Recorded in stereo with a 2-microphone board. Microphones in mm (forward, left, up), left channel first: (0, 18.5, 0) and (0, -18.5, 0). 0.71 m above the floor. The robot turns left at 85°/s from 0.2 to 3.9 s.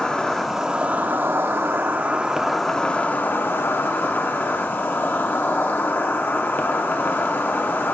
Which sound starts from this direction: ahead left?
An insect, at 0.0 s.